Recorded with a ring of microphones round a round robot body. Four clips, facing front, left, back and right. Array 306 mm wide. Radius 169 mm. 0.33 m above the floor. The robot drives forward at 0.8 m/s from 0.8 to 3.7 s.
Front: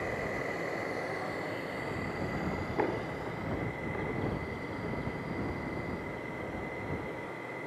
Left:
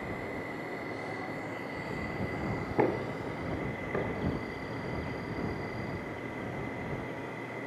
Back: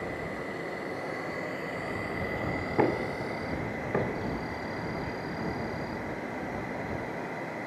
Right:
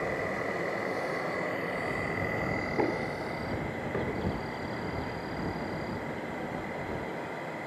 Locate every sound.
0.0 s an insect: 85° right, 2 m; by 7.7 s 140° right, 3 m
2.8 s knocking: 160° left, 1.0 m; by 4.3 s 170° left, 1.5 m